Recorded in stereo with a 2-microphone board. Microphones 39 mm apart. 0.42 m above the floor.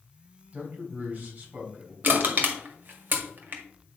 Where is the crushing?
50° right (ahead or behind), 1.7 m.